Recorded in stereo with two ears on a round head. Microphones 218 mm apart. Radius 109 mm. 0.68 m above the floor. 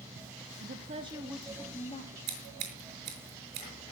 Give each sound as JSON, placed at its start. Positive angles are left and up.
{"t": 0.6, "sound": "a woman speaking", "side_deg": -40, "distance_m": 1.3}
{"t": 2.3, "sound": "scissors", "side_deg": -70, "distance_m": 5.5}